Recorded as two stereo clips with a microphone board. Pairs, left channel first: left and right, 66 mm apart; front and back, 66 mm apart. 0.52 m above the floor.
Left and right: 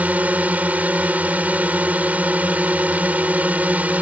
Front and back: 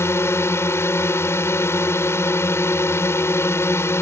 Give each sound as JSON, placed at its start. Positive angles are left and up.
{"t": 0.0, "sound": "a drone", "azimuth_deg": -30}